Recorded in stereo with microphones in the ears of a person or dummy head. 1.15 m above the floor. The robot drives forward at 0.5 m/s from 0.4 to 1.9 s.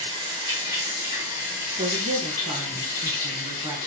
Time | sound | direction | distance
0.0 | running water | 25° right (ahead or behind) | 0.7 m
1.7 | a woman speaking | 25° right (ahead or behind) | 0.9 m